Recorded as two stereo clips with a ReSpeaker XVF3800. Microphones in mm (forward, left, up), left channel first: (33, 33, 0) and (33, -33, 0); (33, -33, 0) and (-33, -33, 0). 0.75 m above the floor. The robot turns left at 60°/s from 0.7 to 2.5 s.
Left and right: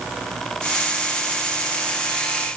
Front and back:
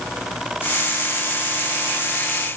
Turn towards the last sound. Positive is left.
No sound to turn to.